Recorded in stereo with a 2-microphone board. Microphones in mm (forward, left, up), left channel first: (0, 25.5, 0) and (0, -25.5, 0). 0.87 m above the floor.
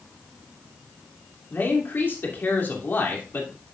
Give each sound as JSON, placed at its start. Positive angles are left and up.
{"t": 1.5, "sound": "a man speaking", "side_deg": 45, "distance_m": 2.5}